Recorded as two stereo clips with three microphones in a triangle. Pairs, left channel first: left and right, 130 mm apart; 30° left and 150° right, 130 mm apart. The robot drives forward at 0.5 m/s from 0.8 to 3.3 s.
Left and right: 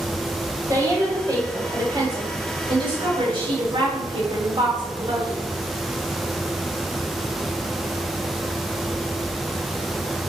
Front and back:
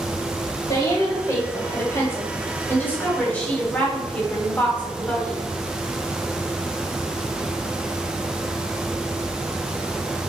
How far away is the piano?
I don't hear a piano.